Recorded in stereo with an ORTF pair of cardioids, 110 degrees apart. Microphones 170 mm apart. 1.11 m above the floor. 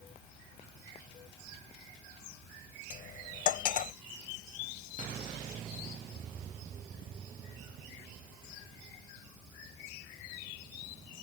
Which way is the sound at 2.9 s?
55° left.